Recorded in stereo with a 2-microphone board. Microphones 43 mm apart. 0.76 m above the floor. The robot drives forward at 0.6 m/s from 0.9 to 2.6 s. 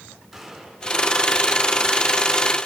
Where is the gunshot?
Centre (ahead or behind), 6 m.